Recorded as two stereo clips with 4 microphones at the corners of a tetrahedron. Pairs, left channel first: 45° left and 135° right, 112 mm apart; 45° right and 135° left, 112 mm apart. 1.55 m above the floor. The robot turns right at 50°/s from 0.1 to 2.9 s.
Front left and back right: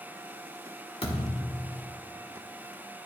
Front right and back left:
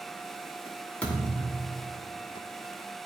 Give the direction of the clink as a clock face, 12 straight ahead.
No clink in this recording.